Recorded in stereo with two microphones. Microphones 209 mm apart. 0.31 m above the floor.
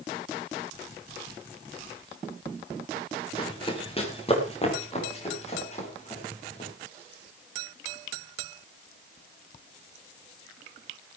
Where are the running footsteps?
25° left (ahead or behind), 3.5 m; by 6.7 s 35° left (ahead or behind), 8.5 m.